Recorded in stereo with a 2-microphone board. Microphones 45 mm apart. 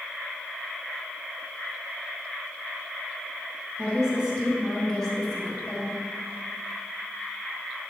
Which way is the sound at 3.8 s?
15° right (ahead or behind).